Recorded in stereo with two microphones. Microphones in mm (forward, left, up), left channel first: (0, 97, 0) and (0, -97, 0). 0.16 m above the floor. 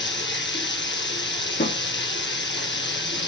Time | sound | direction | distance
0.0 | running water | 70° left (ahead or behind) | 3.5 m
1.6 | a snare drum | 65° left (ahead or behind) | 6 m